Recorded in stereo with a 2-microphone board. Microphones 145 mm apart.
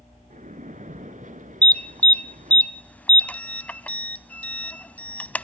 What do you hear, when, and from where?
0.3 s a splash: 60° right (ahead or behind), 1.6 m
1.6 s an alarm: 10° left (ahead or behind), 0.7 m